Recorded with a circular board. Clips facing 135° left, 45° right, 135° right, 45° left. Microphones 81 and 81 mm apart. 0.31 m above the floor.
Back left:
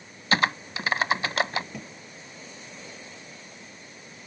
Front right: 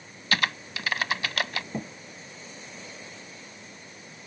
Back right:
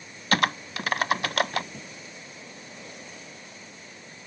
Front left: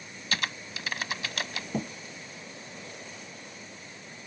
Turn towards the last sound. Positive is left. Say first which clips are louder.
# front right 6 dB, front left 10 dB
turn(degrees=15)